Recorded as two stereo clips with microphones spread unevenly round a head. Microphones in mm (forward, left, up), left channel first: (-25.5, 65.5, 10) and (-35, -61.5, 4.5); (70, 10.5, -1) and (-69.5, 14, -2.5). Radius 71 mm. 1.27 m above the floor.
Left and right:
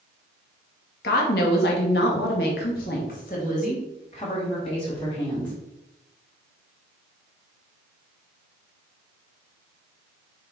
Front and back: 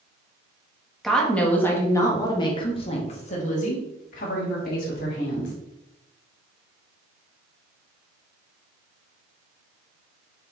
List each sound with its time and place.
1.0 s a woman speaking: 90° left, 1.9 m; by 5.5 s 20° left, 3.5 m